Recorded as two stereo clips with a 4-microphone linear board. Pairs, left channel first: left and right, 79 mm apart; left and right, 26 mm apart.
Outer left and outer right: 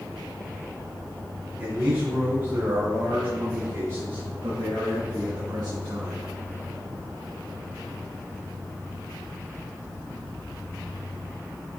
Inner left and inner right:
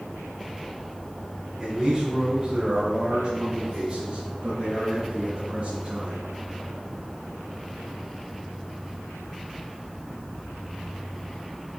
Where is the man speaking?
35° right (ahead or behind), 3 m; by 6.2 s 70° right (ahead or behind), 4 m.